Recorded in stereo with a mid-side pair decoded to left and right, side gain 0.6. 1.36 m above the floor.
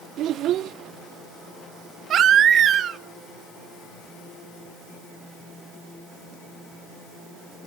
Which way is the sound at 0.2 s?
60° right.